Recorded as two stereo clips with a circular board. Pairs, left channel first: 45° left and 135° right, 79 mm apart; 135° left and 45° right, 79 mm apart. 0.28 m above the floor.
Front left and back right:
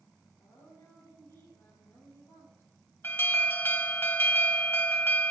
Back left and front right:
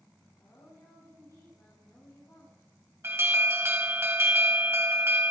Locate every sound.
0.4 s a woman speaking: 85° left, 6 m
3.0 s an alarm: straight ahead, 1.2 m